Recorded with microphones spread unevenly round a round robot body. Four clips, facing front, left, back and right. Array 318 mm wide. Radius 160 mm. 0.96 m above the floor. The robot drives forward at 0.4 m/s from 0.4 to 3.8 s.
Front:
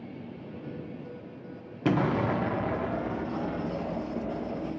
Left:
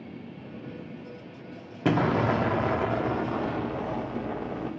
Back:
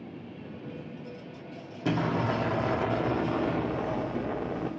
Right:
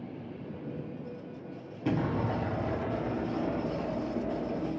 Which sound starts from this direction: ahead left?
An explosion, at 1.9 s.